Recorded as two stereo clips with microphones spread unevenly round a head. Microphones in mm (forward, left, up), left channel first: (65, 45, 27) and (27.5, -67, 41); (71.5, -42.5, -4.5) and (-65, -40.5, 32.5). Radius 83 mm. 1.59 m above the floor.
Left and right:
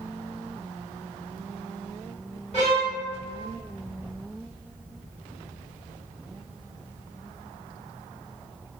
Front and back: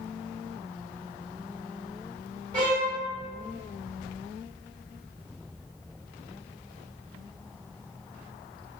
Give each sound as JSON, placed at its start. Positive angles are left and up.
{"t": 2.5, "sound": "a violin", "azimuth_deg": 125, "distance_m": 1.3}